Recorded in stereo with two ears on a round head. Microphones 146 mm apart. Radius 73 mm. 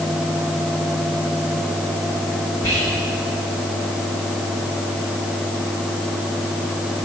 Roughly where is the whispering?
Left.